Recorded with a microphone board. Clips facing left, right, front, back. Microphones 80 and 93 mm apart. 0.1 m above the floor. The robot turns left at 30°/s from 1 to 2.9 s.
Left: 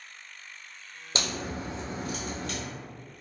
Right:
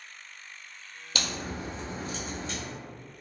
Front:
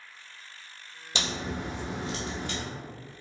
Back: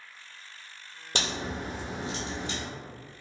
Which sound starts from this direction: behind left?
A crack, at 1.1 s.